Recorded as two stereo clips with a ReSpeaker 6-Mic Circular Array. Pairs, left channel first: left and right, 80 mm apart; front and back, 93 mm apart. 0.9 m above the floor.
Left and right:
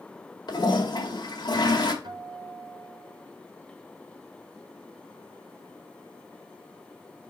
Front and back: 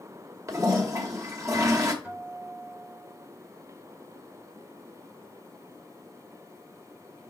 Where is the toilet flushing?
125° left, 1.8 m.